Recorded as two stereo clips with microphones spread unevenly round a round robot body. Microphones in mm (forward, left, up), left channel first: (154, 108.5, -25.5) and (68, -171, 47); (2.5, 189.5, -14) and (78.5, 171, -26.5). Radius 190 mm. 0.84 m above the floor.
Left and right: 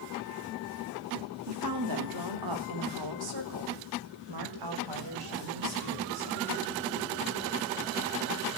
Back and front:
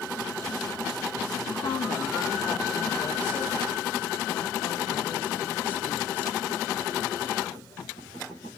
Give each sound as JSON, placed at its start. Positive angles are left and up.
{"t": 1.5, "sound": "a woman speaking", "azimuth_deg": -160, "distance_m": 2.0}